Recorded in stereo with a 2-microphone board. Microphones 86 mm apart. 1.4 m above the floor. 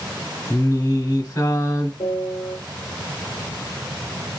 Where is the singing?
50° left (ahead or behind), 1.7 m.